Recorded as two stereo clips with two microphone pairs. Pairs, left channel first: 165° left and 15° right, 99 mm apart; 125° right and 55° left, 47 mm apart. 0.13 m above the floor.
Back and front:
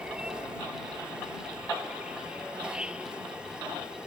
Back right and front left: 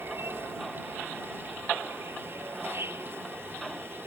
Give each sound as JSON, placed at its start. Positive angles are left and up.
{"t": 0.0, "sound": "an insect", "azimuth_deg": 65}